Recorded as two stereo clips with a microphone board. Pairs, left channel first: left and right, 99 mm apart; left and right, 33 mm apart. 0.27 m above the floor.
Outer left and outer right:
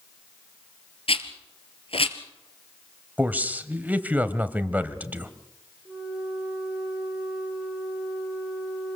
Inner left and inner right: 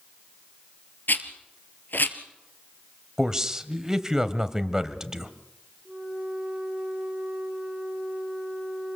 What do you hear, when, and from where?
1.1 s a rattle: 70° left (ahead or behind), 1.8 m
3.2 s a man speaking: 15° right (ahead or behind), 1.1 m
5.8 s a flute: 5° right (ahead or behind), 7.5 m